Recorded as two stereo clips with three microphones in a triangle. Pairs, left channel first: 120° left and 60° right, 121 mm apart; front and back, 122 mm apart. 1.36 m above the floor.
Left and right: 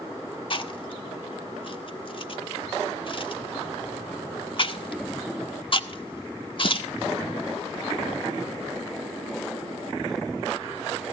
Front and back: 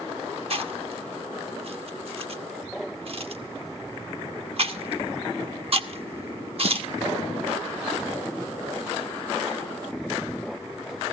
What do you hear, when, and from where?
0.5 s chewing: 155° left, 1.1 m